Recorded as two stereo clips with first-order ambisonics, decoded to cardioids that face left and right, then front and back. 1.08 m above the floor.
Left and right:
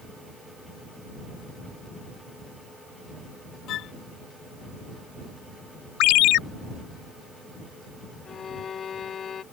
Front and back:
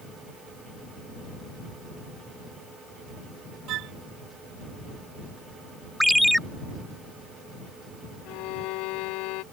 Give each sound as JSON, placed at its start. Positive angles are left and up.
{"t": 3.7, "sound": "a flute", "azimuth_deg": 140}
{"t": 6.0, "sound": "a ringtone", "azimuth_deg": 90}
{"t": 8.2, "sound": "a violin", "azimuth_deg": 25}